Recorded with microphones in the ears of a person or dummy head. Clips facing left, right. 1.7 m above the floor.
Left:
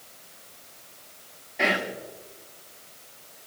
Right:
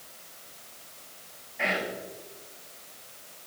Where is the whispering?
60° left (ahead or behind), 0.9 m.